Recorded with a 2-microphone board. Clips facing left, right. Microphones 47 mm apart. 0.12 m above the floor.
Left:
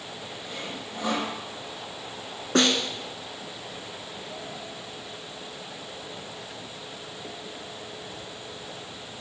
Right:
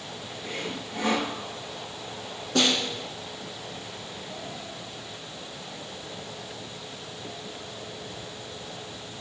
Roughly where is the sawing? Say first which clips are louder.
Right 4 dB; right.